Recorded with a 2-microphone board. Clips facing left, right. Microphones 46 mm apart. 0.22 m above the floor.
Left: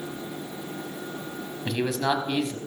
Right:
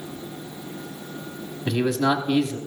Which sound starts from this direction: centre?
A man speaking, at 1.6 s.